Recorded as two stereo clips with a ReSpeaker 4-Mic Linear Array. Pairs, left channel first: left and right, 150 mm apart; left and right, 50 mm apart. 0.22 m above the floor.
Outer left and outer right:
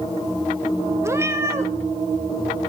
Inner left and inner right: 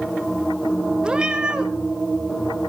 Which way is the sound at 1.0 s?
15° right (ahead or behind).